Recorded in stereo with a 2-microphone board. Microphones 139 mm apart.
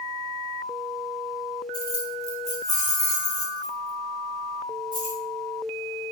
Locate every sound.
1.7 s keys jangling: 35° right (ahead or behind), 1.4 m; by 5.2 s 80° right, 4.5 m